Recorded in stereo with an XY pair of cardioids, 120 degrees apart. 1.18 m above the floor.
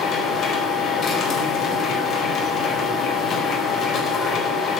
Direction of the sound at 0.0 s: 45° left.